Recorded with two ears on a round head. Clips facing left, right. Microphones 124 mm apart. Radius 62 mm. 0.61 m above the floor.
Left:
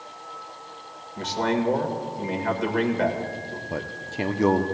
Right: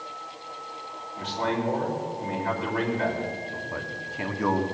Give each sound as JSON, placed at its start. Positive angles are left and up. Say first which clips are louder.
{"t": 1.2, "sound": "a man speaking", "louder": "left 3 dB", "side_deg": 55, "distance_m": 1.9}
{"t": 3.7, "sound": "a man speaking", "louder": "left 3 dB", "side_deg": 35, "distance_m": 0.8}